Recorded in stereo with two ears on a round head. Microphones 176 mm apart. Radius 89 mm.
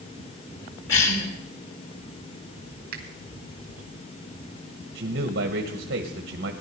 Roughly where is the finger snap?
Right.